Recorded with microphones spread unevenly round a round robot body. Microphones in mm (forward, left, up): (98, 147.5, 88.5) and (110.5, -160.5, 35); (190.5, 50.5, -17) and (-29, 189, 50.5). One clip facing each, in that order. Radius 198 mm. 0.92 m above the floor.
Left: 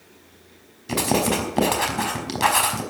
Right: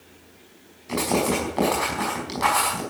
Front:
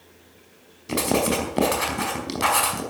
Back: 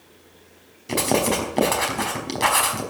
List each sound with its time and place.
0.9 s writing: 50° left, 5 m